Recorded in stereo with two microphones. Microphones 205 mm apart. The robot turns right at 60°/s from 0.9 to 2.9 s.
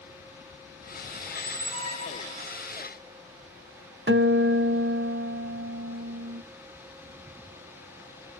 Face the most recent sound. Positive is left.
turn(degrees=-60)  # may be behind; listen again after turning